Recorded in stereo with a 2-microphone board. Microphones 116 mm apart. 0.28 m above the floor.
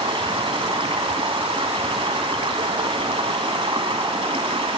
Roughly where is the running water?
Right.